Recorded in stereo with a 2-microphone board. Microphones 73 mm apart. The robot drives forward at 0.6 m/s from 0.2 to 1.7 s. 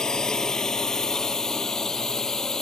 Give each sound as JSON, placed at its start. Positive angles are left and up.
{"t": 0.0, "sound": "a drone", "side_deg": 10}